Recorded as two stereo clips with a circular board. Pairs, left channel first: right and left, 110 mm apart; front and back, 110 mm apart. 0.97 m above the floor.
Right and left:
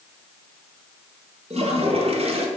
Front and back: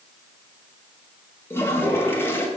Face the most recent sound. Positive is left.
turn(degrees=70)